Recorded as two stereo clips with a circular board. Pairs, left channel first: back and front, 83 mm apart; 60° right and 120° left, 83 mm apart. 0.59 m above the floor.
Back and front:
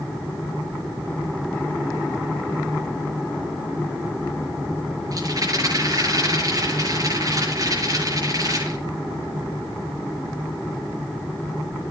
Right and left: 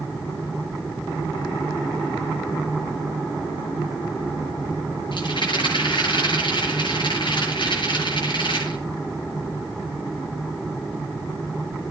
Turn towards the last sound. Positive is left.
turn(degrees=-45)